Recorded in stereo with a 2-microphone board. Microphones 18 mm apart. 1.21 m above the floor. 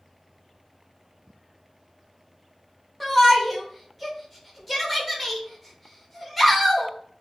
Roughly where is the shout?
Centre.